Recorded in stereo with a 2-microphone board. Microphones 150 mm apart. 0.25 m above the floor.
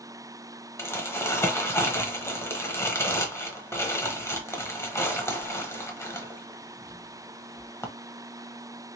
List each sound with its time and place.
0.8 s crumpling: 20° left (ahead or behind), 0.7 m